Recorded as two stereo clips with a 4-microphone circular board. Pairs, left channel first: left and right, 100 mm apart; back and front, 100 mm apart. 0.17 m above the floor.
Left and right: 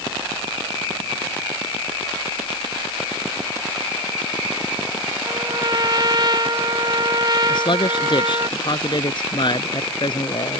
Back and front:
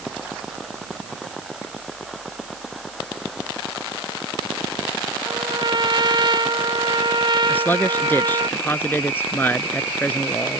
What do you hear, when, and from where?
5.3 s a trumpet: 45° right
7.5 s a man speaking: 115° left